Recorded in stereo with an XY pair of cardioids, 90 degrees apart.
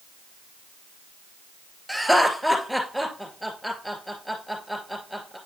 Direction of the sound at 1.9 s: Straight ahead.